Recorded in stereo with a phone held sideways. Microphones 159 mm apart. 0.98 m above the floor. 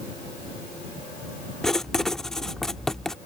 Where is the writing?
5° left (ahead or behind).